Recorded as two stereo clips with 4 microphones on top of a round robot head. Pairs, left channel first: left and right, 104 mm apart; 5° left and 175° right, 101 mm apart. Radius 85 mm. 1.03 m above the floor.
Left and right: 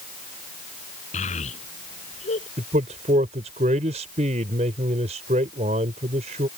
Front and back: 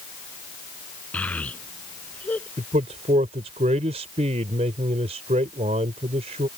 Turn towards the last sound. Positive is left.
turn(degrees=-130)